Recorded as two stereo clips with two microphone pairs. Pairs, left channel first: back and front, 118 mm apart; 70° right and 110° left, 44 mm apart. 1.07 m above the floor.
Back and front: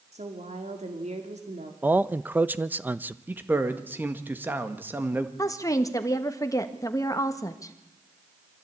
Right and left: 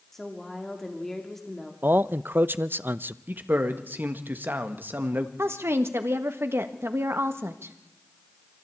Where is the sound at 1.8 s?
75° left, 0.7 m.